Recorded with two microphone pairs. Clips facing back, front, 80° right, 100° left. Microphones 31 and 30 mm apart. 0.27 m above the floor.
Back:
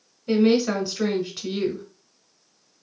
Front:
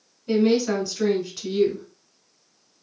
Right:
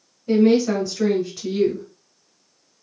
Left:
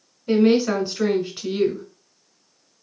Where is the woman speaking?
125° left, 1.1 m.